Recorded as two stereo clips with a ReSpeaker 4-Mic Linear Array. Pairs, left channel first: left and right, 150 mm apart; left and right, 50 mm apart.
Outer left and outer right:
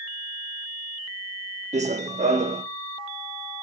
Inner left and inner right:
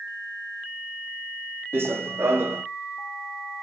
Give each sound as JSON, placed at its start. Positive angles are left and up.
{"t": 1.7, "sound": "running footsteps", "side_deg": -55, "distance_m": 0.8}